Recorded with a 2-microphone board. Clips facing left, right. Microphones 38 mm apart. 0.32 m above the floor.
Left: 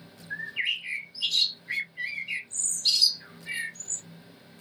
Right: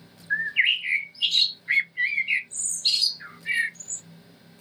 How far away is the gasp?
No gasp in this recording.